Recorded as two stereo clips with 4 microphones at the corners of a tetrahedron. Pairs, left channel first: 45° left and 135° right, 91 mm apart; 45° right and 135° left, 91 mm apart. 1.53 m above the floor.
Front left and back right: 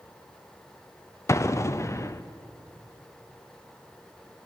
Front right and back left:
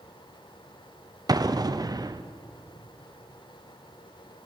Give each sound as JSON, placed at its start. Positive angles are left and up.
{"t": 1.3, "sound": "an explosion", "azimuth_deg": 100, "distance_m": 0.5}